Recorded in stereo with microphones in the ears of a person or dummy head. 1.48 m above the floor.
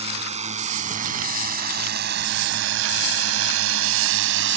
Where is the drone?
35° right (ahead or behind); by 4.6 s 65° right (ahead or behind).